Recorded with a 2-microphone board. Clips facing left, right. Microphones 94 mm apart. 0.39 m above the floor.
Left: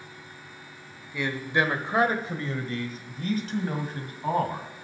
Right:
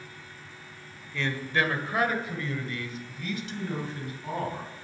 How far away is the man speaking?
About 1.4 m.